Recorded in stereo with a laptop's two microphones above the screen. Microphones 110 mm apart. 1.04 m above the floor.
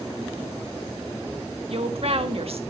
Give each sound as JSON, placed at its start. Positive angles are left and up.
{"t": 1.7, "sound": "a woman speaking", "side_deg": -60, "distance_m": 1.5}